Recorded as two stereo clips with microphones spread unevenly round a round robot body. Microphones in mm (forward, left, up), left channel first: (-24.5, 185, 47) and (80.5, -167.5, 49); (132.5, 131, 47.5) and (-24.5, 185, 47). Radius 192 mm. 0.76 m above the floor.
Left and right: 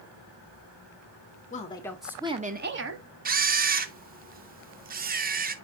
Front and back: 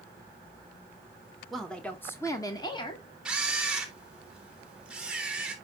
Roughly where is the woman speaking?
Left.